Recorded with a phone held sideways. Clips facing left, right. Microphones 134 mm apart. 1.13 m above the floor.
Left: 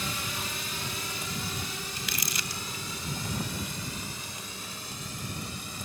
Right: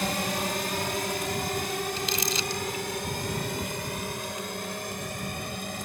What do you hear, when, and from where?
0.0 s a drone: 60° right (ahead or behind)
2.0 s crumpling: 25° right (ahead or behind)